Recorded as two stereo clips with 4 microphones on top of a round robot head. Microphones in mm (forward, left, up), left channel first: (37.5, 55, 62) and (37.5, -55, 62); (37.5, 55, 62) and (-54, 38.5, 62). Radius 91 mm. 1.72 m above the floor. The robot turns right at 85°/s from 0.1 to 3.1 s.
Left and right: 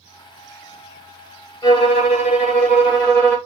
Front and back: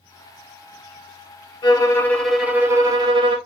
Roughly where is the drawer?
I don't hear a drawer.